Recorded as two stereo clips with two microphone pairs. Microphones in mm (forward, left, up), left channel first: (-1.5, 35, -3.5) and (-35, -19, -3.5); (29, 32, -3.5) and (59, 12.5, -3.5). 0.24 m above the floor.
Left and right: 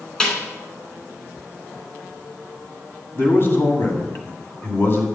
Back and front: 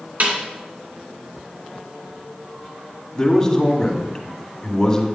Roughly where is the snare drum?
Ahead.